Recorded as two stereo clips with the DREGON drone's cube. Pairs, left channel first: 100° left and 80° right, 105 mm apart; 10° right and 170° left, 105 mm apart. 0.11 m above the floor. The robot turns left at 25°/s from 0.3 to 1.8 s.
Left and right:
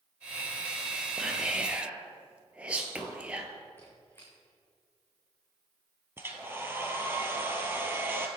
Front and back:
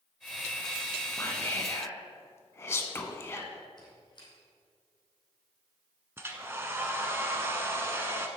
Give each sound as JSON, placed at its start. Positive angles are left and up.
{"t": 1.2, "sound": "whispering", "azimuth_deg": 0, "distance_m": 1.4}
{"t": 3.8, "sound": "a squeak", "azimuth_deg": 35, "distance_m": 4.0}
{"t": 6.2, "sound": "a hair dryer", "azimuth_deg": -135, "distance_m": 1.1}